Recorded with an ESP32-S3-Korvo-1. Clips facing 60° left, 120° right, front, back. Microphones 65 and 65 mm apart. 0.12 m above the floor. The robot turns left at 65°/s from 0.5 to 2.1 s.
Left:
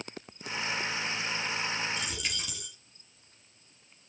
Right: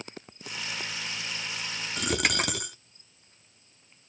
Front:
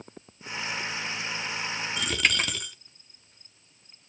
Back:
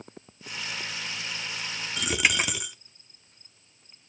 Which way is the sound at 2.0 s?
90° right.